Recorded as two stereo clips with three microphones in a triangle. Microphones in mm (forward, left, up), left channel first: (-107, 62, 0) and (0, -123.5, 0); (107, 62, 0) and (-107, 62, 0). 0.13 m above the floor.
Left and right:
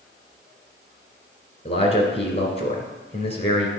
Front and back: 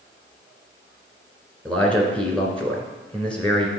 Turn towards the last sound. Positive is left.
turn(degrees=80)